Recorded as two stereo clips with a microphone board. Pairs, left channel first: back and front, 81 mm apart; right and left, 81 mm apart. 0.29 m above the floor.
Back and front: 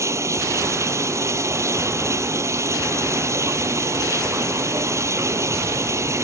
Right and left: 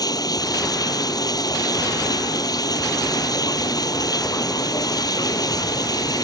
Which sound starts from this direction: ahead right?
Running water, at 0.0 s.